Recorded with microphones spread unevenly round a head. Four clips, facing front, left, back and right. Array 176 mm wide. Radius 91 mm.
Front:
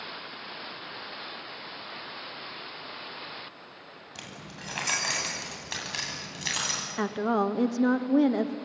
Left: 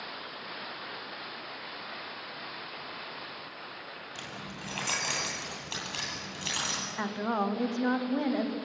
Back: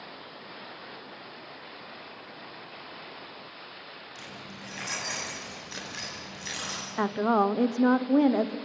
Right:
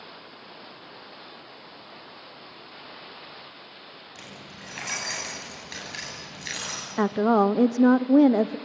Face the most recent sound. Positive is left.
turn(degrees=-80)